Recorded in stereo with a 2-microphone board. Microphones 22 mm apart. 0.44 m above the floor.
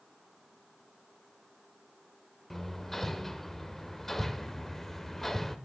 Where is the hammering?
10° left (ahead or behind), 0.8 m.